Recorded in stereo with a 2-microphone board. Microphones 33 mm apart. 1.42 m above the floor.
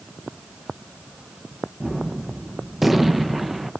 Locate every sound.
1.8 s a gunshot: 5° right (ahead or behind), 1.2 m